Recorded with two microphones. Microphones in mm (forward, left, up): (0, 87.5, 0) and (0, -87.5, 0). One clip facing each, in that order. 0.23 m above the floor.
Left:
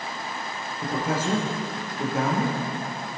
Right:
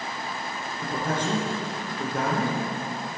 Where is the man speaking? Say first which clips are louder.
Left 2 dB; 5° left (ahead or behind), 3 m.